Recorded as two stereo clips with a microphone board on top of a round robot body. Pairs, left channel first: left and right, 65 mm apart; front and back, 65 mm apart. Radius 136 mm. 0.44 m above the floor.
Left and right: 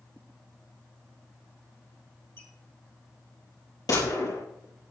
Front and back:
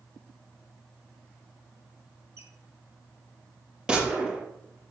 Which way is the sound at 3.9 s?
105° left.